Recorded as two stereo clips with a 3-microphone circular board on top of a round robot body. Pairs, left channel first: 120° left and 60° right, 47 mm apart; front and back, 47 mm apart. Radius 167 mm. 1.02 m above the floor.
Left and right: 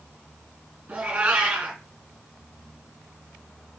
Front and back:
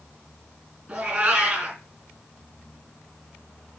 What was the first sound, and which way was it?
A cat meowing, 125° right.